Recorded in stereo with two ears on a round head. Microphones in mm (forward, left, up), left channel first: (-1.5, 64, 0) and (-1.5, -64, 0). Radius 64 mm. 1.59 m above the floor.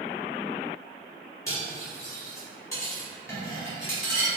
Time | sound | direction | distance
1.5 | cutlery clinking | 20° left (ahead or behind) | 1.5 m